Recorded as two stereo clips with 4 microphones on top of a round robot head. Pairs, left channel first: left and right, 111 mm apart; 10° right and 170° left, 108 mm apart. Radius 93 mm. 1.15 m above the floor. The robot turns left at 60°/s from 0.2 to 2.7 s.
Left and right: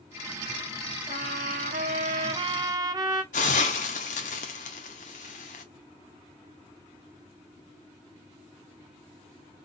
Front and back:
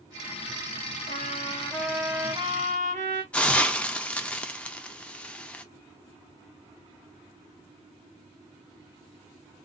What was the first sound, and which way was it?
A trumpet, 45° right.